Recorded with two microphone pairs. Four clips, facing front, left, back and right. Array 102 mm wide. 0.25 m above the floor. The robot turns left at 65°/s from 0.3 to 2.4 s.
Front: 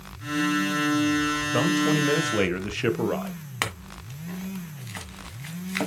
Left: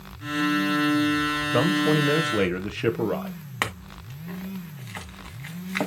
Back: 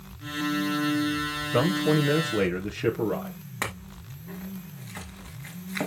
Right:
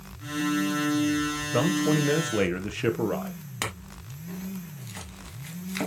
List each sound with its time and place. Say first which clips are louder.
1.5 s a man speaking: left 2 dB, back 1 dB; 100° left, 1.0 m; by 3.4 s 45° left, 1.0 m
3.6 s a clink: left 5 dB, front 2 dB; 75° left, 1.4 m